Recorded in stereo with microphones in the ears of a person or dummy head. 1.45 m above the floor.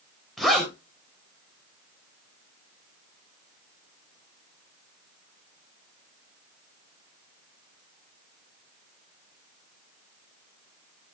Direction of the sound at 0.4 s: Centre (ahead or behind).